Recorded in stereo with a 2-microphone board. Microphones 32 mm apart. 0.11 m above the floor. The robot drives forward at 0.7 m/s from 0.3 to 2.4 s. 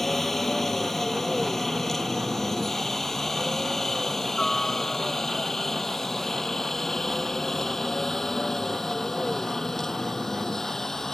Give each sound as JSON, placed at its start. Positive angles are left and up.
{"t": 0.0, "sound": "a helicopter", "side_deg": 5}